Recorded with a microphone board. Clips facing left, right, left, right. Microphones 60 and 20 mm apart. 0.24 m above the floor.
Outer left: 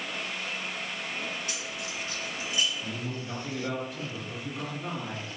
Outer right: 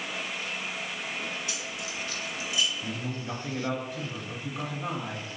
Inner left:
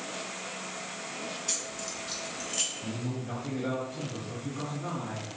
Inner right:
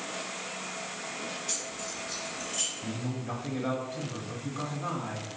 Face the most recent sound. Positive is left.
turn(degrees=-20)  # may be behind; listen again after turning